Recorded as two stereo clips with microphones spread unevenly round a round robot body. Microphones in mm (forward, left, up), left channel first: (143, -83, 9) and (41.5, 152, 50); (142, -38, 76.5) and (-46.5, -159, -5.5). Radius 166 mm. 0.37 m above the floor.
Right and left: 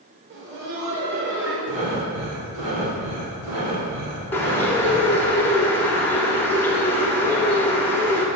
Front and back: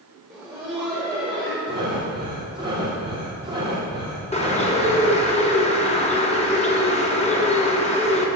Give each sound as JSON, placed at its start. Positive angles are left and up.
{"t": 0.3, "sound": "laughter", "azimuth_deg": 150, "distance_m": 1.0}
{"t": 1.7, "sound": "breathing", "azimuth_deg": 135, "distance_m": 2.0}
{"t": 4.3, "sound": "a bird", "azimuth_deg": -35, "distance_m": 1.1}